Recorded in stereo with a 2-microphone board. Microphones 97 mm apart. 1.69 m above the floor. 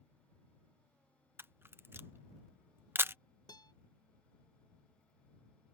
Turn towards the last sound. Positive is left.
turn(degrees=45)  # may be behind; listen again after turning